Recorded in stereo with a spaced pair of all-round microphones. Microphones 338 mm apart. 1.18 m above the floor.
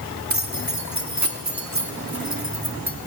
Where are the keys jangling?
55° right (ahead or behind), 1.7 m.